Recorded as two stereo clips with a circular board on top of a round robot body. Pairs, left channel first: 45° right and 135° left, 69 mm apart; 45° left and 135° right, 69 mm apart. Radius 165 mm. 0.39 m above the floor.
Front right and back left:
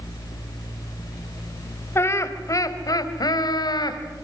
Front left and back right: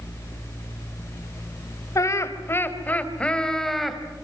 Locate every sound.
1.9 s laughter: 5° left, 3.5 m; by 4.0 s 45° right, 4 m